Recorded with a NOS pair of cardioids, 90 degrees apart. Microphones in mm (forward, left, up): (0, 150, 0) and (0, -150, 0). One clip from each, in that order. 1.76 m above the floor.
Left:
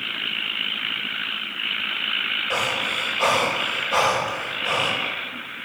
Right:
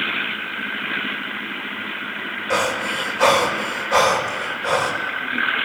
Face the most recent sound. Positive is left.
turn(degrees=-35)